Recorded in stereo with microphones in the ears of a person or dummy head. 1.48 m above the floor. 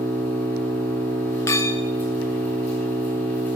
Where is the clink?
20° left (ahead or behind), 0.6 m.